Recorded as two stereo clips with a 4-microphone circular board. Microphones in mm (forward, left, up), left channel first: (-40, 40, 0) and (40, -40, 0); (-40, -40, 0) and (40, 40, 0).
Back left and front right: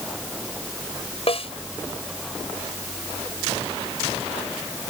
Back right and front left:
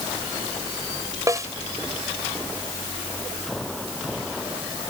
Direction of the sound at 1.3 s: 105° left.